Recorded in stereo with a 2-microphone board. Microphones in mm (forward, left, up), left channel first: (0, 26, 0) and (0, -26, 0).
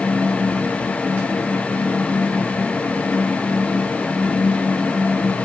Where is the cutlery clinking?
No cutlery clinking in this recording.